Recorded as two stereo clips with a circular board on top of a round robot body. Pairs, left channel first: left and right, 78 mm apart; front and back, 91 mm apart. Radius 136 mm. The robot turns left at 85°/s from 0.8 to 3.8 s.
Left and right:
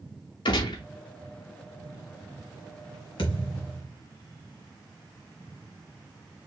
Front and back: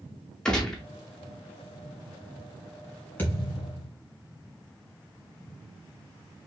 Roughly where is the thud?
Left.